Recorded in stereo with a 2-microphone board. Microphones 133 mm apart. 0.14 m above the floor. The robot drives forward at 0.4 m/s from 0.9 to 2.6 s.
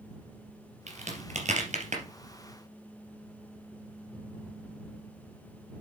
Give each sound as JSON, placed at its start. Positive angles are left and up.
{"t": 0.9, "sound": "a crack", "side_deg": -65, "distance_m": 2.5}